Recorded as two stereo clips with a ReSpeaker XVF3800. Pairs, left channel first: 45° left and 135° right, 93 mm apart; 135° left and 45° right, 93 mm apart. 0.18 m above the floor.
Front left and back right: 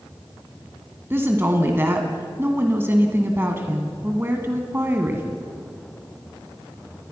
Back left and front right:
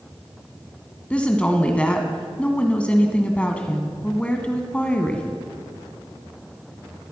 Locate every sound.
1.1 s a woman speaking: 165° right, 1.7 m